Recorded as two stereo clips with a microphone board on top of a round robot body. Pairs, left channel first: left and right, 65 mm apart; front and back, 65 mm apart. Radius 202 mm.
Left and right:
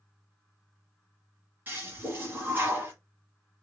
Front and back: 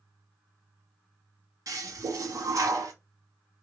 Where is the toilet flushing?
150° right, 1.1 m.